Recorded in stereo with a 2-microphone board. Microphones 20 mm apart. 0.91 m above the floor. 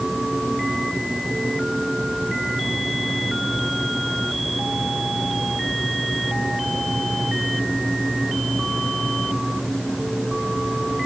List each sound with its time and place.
Only background noise.